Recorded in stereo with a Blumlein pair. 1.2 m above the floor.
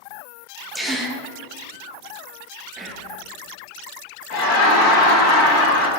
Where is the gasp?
5° left, 0.8 m.